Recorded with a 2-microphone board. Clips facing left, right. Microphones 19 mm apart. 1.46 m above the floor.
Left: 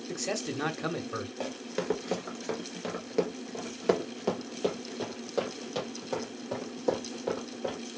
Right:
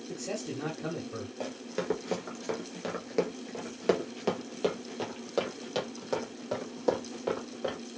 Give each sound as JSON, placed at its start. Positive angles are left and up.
{"t": 0.1, "sound": "a man speaking", "side_deg": 70, "distance_m": 1.0}
{"t": 1.4, "sound": "running footsteps", "side_deg": 15, "distance_m": 1.5}